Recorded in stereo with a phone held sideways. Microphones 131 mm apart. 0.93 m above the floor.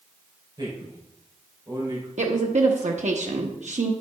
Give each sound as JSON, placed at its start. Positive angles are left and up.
{"t": 0.6, "sound": "a man speaking", "side_deg": -35, "distance_m": 5.0}
{"t": 2.2, "sound": "a woman speaking", "side_deg": -65, "distance_m": 1.0}